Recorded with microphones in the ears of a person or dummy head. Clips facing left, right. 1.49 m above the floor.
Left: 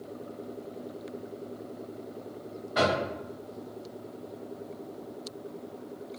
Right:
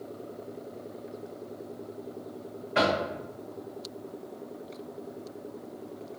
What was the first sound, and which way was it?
Knocking, 35° right (ahead or behind).